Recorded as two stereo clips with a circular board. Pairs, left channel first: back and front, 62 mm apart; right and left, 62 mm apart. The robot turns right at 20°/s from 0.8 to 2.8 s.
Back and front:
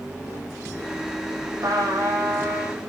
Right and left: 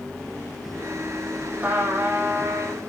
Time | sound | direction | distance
1.6 | a trumpet | 30° left | 7.5 m